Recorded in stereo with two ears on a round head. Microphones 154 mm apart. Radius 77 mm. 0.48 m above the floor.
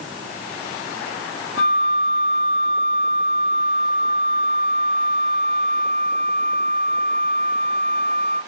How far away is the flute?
About 2.5 m.